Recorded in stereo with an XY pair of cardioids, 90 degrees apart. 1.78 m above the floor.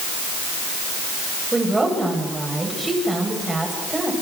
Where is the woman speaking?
20° right, 9.5 m.